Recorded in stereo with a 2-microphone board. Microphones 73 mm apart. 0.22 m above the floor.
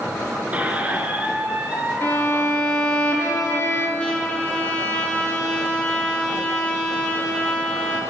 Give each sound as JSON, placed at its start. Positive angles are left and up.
{"t": 0.5, "sound": "a squeak", "side_deg": -20, "distance_m": 1.0}
{"t": 2.0, "sound": "a violin", "side_deg": 35, "distance_m": 1.8}
{"t": 4.0, "sound": "a trumpet", "side_deg": 15, "distance_m": 1.7}